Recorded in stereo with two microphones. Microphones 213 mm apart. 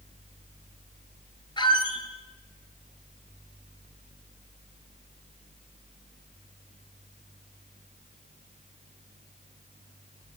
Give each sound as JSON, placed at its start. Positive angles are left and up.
{"t": 1.6, "sound": "a squeak", "side_deg": 20, "distance_m": 1.3}